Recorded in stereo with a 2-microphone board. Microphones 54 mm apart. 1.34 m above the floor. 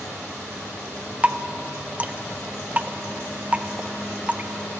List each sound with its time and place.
1.2 s dripping: 25° right (ahead or behind), 0.5 m